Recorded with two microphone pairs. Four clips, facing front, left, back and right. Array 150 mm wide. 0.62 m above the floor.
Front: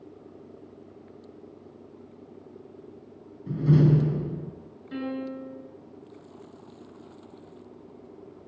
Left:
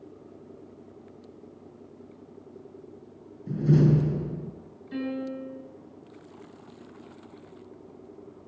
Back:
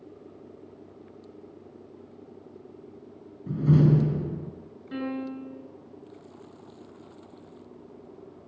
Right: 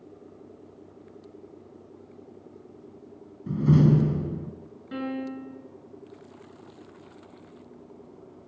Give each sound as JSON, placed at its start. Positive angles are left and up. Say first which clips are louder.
{"t": 3.5, "sound": "a door slam", "louder": "right 1 dB, even", "azimuth_deg": -95, "distance_m": 5.0}
{"t": 4.9, "sound": "a piano", "louder": "even, even", "azimuth_deg": -105, "distance_m": 9.5}